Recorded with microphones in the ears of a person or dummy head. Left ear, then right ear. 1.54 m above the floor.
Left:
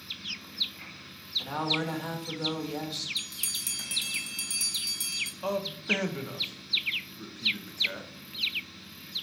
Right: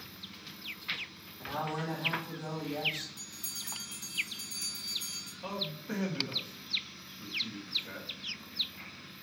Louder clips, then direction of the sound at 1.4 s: Left 5 dB; 70° left (ahead or behind).